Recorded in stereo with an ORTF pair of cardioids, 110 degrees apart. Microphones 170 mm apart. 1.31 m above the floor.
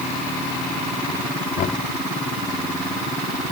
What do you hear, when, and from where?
1.6 s knocking: 60° left